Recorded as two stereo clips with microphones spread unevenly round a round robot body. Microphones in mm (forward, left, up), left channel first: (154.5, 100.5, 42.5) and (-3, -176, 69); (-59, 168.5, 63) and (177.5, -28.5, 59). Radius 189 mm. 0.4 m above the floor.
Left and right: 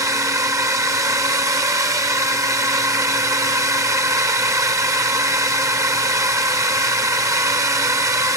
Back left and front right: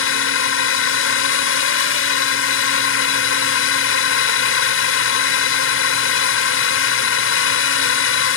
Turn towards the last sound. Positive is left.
turn(degrees=160)